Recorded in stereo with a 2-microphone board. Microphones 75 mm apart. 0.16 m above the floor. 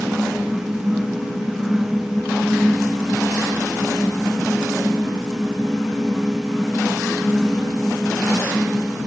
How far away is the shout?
No shout in this recording.